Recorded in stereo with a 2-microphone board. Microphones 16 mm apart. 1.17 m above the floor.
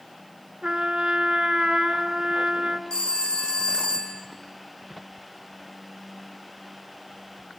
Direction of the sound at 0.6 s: 80° right.